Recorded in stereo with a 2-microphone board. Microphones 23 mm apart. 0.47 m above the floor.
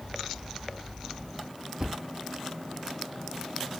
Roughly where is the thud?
Right.